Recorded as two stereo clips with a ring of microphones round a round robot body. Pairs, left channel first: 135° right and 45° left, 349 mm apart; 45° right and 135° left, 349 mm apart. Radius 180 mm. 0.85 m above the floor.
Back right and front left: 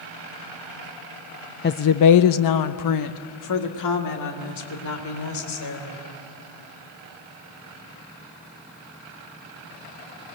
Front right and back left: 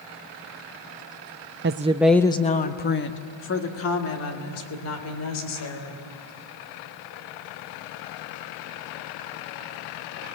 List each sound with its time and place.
1.6 s a woman speaking: 175° left, 0.6 m; by 6.0 s 90° right, 4 m